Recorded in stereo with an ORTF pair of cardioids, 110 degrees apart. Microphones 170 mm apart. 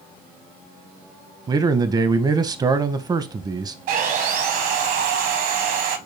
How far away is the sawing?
About 1.0 m.